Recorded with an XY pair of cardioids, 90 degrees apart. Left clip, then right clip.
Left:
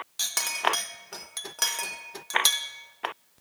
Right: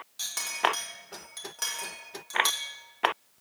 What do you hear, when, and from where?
0.2 s a clink: 55° left, 1.2 m